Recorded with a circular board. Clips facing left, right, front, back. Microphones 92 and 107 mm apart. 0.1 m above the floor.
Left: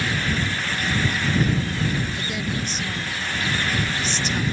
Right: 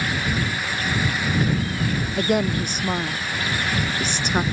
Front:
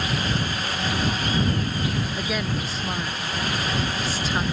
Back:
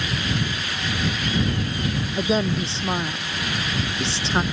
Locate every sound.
2.2 s a woman speaking: 120° right